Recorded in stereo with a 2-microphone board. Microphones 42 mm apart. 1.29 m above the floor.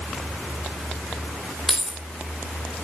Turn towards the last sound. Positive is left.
turn(degrees=0)  # may be behind; listen again after turning